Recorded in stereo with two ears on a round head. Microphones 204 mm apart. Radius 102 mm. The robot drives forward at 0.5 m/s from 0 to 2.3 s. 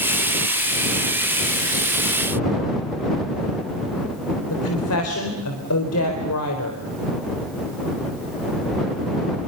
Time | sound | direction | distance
4.5 | a woman speaking | 70° left (ahead or behind) | 4 m